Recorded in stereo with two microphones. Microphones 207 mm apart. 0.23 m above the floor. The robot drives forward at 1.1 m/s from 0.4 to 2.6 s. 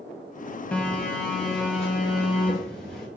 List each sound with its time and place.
0.7 s a phone buzzing: 5° left (ahead or behind), 1.2 m; by 3.1 s centre (ahead or behind), 3 m